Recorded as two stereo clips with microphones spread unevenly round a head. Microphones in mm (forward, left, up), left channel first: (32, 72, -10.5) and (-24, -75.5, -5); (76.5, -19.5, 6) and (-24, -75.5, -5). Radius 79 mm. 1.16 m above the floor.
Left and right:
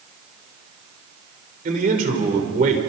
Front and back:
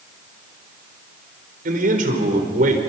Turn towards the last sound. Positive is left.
turn(degrees=-155)